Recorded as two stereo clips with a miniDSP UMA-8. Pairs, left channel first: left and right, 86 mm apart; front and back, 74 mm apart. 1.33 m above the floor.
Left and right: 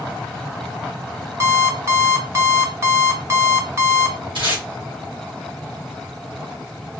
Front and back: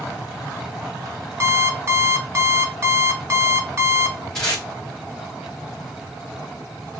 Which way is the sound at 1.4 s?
140° right.